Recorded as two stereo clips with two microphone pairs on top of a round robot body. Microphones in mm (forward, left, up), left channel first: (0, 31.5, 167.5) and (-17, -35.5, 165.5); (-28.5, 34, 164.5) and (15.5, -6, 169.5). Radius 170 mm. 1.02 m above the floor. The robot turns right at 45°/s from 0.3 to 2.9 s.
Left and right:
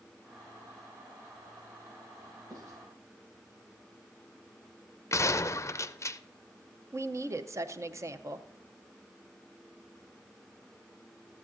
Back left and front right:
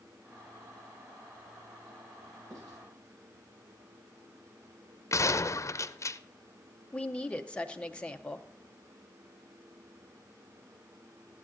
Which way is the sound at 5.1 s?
120° left.